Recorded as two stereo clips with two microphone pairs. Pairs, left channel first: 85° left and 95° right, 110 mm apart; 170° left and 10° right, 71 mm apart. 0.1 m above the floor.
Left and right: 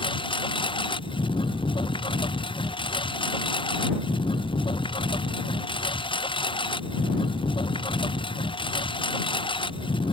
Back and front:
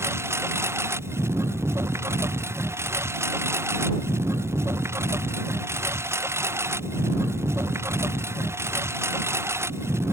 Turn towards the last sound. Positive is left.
turn(degrees=40)